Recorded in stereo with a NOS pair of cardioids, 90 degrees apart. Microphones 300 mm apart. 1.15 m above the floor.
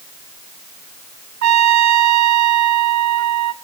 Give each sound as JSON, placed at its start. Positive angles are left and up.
{"t": 1.4, "sound": "a trumpet", "azimuth_deg": -65, "distance_m": 1.0}